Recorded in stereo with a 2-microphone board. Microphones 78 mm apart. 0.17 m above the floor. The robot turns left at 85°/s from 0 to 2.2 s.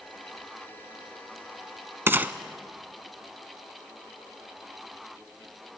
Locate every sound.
2.1 s a gunshot: 30° right (ahead or behind), 0.7 m; by 2.3 s 25° right (ahead or behind), 0.7 m